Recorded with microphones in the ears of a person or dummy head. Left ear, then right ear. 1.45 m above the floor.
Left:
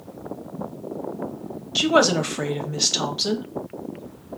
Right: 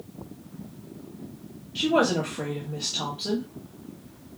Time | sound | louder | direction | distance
1.8 | a woman speaking | left 5 dB | 55° left (ahead or behind) | 0.8 m